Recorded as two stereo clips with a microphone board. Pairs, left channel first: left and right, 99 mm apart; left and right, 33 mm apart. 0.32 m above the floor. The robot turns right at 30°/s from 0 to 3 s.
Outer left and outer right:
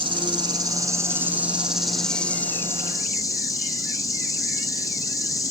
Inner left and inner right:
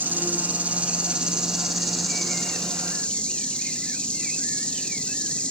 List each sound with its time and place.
0.0 s an insect: 55° right, 1.3 m; by 5.5 s 35° left, 1.3 m